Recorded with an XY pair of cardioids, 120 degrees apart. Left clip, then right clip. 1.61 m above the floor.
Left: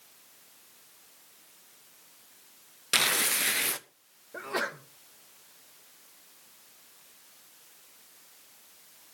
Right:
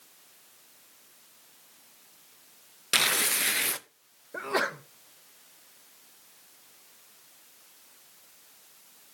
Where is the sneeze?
25° right, 1.2 m.